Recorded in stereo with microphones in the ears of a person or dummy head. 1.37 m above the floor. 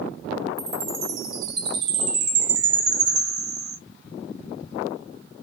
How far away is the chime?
About 1.6 m.